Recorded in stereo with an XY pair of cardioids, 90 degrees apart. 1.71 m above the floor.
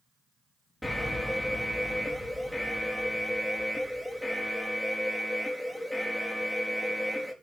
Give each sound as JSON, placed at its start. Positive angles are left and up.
{"t": 0.8, "sound": "an alarm", "azimuth_deg": 5, "distance_m": 5.0}